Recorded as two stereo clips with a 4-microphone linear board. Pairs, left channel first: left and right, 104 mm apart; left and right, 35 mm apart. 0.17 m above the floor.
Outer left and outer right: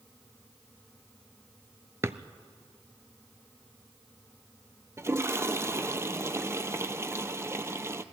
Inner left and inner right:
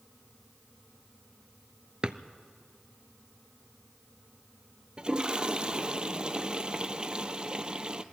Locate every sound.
2.0 s a drawer: 25° right (ahead or behind), 0.6 m
5.0 s a toilet flushing: 25° right (ahead or behind), 0.7 m